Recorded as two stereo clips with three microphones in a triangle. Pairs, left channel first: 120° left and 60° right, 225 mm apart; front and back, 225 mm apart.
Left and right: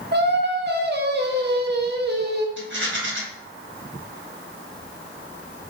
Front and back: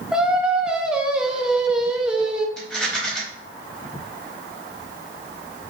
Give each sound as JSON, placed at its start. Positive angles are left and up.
{"t": 0.1, "sound": "singing", "azimuth_deg": -95, "distance_m": 0.5}
{"t": 2.6, "sound": "a rattle", "azimuth_deg": -90, "distance_m": 1.1}